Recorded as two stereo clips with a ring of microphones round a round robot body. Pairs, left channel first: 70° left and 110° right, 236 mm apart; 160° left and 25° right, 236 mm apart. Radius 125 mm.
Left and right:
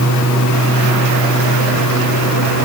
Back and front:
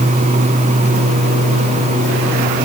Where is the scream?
I don't hear a scream.